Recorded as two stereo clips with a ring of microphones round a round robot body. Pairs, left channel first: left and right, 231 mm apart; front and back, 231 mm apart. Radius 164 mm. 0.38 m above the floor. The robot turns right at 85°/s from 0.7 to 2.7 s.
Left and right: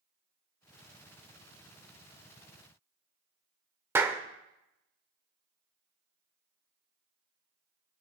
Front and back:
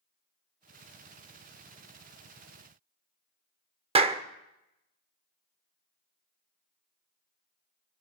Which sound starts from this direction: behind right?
A clap, at 4.0 s.